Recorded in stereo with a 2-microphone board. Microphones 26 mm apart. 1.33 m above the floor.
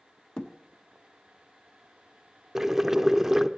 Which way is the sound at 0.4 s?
35° left (ahead or behind).